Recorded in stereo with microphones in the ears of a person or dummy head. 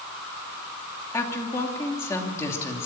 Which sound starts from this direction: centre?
A woman speaking, at 1.1 s.